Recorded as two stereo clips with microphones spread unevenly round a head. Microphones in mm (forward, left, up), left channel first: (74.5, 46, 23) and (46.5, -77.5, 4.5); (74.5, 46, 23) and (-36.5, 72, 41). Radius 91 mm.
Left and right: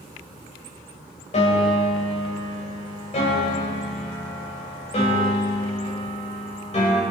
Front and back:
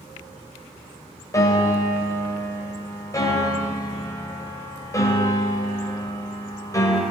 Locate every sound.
1.3 s a piano: 50° left, 3 m